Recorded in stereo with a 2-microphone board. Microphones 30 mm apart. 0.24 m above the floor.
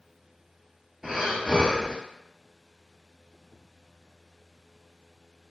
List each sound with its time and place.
1.0 s breathing: 10° right (ahead or behind), 0.9 m